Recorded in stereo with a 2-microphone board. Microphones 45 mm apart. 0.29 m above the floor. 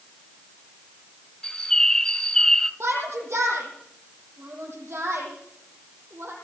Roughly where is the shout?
Right.